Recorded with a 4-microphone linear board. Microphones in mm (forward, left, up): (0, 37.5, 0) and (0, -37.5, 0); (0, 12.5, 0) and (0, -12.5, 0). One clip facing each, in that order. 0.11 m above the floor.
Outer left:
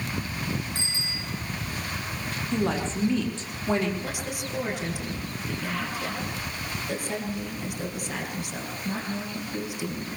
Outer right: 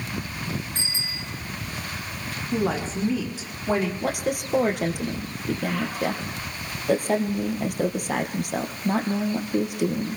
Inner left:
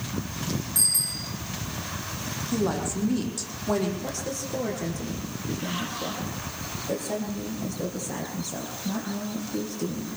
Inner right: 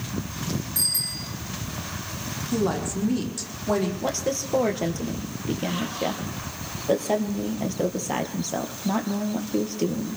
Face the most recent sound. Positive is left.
turn(degrees=-60)  # may be behind; listen again after turning